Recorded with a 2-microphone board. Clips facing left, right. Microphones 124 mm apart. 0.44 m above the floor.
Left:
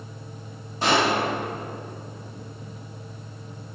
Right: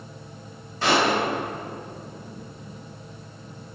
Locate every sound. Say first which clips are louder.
0.8 s a pop: even; 15° left (ahead or behind), 1.8 m